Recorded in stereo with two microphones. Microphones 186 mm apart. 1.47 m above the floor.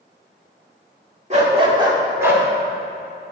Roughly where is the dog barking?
Right.